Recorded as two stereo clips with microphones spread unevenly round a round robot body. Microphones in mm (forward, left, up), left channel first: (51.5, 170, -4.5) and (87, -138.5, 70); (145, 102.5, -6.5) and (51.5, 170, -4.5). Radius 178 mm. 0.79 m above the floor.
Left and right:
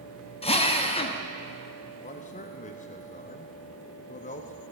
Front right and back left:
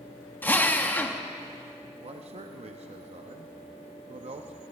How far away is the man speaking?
About 0.6 m.